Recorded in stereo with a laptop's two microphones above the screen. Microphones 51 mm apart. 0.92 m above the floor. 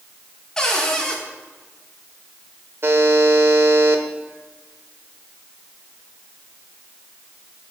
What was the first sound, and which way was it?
A cupboard door, 15° left (ahead or behind).